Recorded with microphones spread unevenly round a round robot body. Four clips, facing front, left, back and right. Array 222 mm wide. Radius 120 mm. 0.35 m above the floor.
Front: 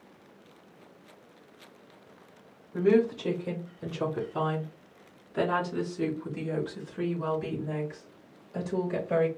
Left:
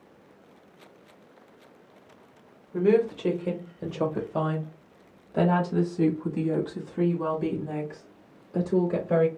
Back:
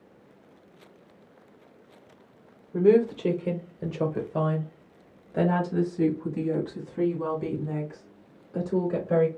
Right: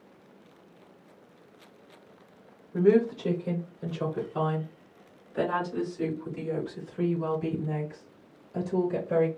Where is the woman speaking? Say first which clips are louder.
Even, back 4 dB; 170° left, 1.0 m; by 9.3 s 115° left, 3.5 m.